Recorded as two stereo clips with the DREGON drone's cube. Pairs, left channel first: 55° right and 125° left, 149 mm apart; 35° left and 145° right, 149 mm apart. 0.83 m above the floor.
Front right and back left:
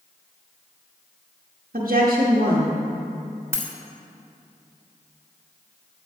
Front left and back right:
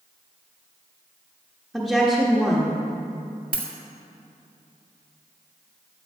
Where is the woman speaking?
120° left, 1.1 m.